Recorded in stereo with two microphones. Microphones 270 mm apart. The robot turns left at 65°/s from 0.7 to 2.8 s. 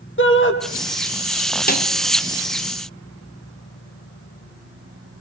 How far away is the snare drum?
About 3 m.